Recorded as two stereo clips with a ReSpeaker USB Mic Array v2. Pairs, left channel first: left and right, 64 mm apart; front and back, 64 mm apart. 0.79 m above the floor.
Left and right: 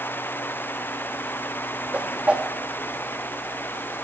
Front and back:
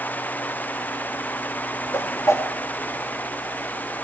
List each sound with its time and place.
1.9 s a whoosh: 25° right, 1.7 m